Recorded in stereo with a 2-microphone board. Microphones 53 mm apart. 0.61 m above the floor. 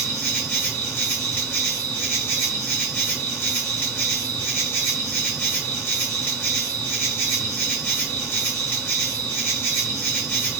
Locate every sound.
0.0 s an insect: 35° left (ahead or behind), 1.1 m